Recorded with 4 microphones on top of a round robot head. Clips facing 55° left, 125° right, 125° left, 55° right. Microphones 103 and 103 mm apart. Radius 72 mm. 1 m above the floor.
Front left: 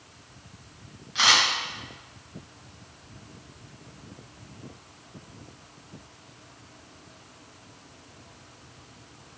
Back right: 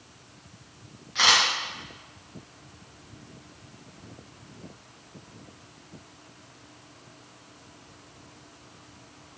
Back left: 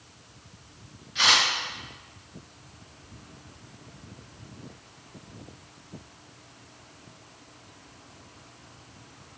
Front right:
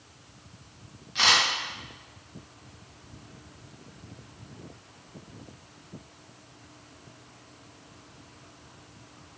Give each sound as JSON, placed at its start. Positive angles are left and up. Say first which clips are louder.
{"t": 1.1, "sound": "a camera shutter", "louder": "even, even", "azimuth_deg": -25, "distance_m": 1.3}